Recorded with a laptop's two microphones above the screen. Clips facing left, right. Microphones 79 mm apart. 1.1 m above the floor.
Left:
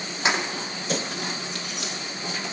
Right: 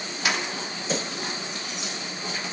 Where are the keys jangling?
25° left (ahead or behind), 1.2 m; by 1.9 s 80° left, 2 m.